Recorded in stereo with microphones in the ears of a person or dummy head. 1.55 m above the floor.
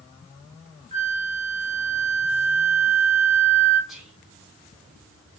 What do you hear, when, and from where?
0.9 s a flute: 35° right (ahead or behind), 1.4 m
3.9 s whispering: centre (ahead or behind), 1.3 m